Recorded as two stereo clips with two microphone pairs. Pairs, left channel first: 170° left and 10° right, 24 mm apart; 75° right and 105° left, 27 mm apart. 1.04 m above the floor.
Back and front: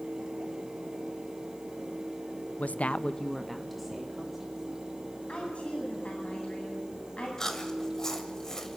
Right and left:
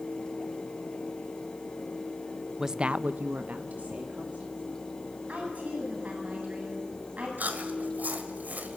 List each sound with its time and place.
2.6 s a woman speaking: 175° right, 0.7 m; by 4.6 s 75° left, 2.5 m
5.3 s a woman speaking: 135° left, 7.5 m
7.4 s chewing: 105° left, 2 m